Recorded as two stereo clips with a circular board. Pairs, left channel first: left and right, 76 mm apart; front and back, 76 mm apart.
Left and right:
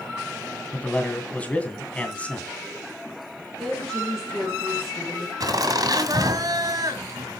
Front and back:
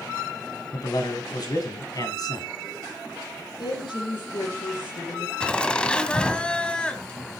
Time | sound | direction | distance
0.7 | a man speaking | 20° left | 2.5 m
3.6 | a woman speaking | straight ahead | 9 m
5.4 | laughter | 75° right | 1.7 m